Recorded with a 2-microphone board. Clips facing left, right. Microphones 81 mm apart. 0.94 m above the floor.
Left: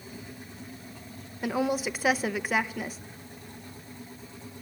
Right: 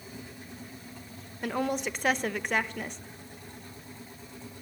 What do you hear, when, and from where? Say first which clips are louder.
1.4 s a woman speaking: left 2 dB; 5° left (ahead or behind), 0.7 m